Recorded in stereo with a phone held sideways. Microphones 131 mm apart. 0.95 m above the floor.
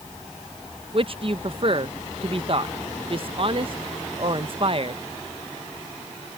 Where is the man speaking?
45° right (ahead or behind).